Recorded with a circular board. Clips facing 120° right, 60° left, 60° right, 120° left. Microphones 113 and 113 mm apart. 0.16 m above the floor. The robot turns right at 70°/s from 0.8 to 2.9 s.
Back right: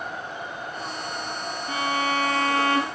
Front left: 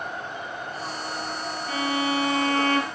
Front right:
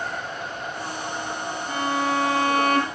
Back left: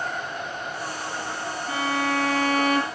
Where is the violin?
165° right, 1.7 m; by 2.9 s 80° right, 1.7 m.